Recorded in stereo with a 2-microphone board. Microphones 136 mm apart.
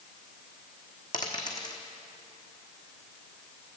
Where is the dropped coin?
30° left (ahead or behind), 1.4 m.